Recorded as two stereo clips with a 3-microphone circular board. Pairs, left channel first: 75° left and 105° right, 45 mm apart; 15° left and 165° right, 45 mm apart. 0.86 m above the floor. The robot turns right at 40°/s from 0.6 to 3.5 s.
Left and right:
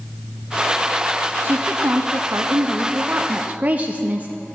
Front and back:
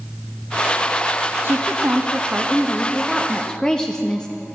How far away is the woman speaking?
About 0.5 m.